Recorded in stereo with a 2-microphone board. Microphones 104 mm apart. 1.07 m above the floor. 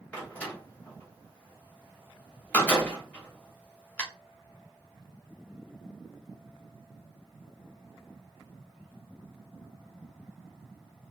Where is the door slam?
15° left (ahead or behind), 1.1 m.